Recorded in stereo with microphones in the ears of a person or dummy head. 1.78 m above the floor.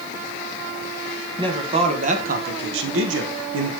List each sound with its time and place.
1.4 s a man speaking: 20° right (ahead or behind), 1.9 m; by 3.7 s 70° right (ahead or behind), 1.5 m